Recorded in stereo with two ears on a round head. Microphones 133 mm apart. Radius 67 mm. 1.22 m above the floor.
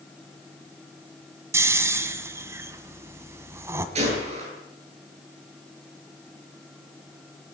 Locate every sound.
1.5 s snoring: 20° right (ahead or behind), 1.6 m
4.0 s a gunshot: 45° right (ahead or behind), 10 m